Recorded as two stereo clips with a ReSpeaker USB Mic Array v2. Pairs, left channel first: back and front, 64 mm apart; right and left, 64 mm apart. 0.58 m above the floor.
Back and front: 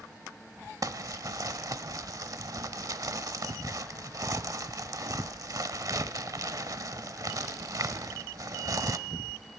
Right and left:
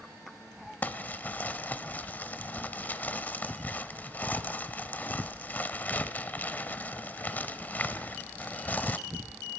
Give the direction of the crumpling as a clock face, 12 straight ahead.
1 o'clock.